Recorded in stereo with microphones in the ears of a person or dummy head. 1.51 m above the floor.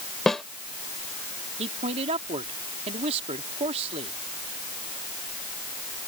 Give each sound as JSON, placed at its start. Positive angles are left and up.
{"t": 0.3, "sound": "a snare drum", "side_deg": 15}
{"t": 1.6, "sound": "a man speaking", "side_deg": -25}